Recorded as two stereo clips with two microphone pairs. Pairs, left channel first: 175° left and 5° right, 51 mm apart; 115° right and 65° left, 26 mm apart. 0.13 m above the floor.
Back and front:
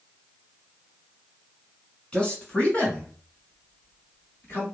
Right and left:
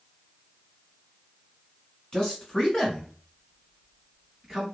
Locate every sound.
2.1 s a man speaking: 140° right, 1.6 m; by 4.7 s 150° left, 2 m